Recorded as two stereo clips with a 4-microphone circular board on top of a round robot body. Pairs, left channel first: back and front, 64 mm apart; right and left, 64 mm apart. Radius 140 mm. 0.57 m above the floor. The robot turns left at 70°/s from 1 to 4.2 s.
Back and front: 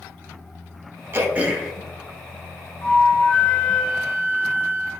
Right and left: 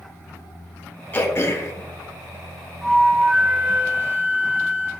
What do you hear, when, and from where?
1.1 s throat clearing: 40° right, 0.8 m; by 1.7 s 85° right, 0.8 m
2.8 s a flute: 165° right, 1.1 m; by 4.9 s 100° left, 1.1 m